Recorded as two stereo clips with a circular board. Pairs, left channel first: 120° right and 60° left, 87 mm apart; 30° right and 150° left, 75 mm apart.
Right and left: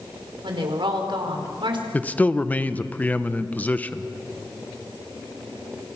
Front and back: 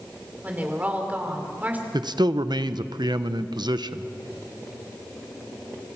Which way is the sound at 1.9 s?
170° left.